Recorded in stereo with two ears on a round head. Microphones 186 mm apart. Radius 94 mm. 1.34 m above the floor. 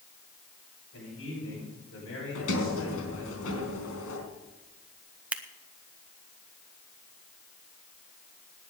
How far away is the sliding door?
About 4 m.